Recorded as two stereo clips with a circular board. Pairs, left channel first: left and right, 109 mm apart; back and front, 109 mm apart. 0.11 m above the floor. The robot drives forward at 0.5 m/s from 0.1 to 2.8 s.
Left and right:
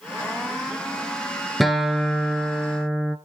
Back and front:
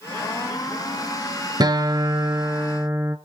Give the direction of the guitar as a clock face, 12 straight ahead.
12 o'clock.